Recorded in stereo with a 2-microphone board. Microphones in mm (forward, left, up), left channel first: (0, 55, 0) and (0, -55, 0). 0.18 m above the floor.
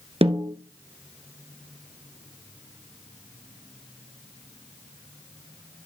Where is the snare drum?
65° right (ahead or behind), 1.1 m.